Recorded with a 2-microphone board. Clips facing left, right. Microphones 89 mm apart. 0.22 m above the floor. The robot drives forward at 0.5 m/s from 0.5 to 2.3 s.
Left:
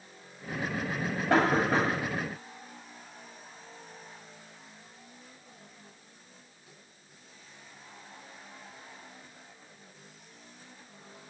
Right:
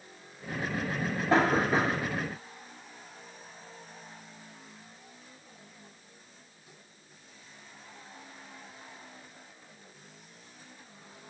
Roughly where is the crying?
I don't hear crying.